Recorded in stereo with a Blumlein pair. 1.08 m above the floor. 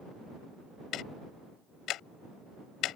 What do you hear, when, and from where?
0.9 s ticking: 35° left